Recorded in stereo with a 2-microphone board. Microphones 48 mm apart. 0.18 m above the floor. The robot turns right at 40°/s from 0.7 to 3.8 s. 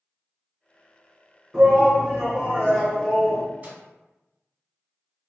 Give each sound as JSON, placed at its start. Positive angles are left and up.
{"t": 1.5, "sound": "a shout", "azimuth_deg": -25, "distance_m": 1.4}
{"t": 3.6, "sound": "a microwave", "side_deg": -30, "distance_m": 1.1}